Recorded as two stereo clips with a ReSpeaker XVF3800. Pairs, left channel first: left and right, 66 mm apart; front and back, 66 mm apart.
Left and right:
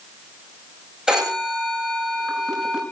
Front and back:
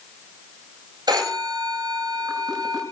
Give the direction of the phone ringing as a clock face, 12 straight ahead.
6 o'clock.